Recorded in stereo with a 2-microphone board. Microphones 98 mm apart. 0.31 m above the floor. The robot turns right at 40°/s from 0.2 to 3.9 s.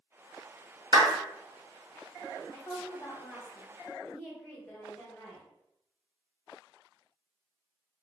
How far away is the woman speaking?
About 1.7 m.